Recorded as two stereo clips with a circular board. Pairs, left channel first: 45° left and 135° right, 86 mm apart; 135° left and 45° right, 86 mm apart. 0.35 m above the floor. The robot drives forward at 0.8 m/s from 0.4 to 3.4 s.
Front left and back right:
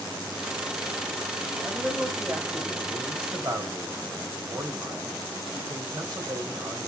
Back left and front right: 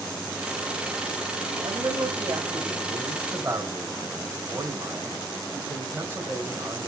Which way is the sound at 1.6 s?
55° right.